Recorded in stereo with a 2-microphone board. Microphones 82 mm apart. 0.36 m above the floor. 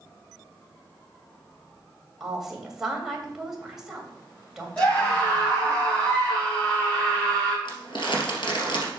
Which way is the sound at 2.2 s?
5° right (ahead or behind).